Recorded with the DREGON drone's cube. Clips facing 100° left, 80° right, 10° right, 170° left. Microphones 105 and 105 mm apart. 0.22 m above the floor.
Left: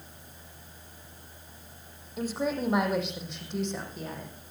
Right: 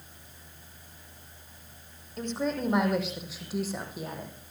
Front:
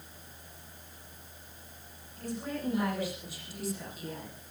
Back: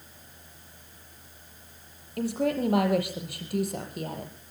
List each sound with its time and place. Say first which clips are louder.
2.2 s a woman speaking: left 1 dB, back 10 dB; 175° right, 7 m; by 4.3 s 155° right, 8 m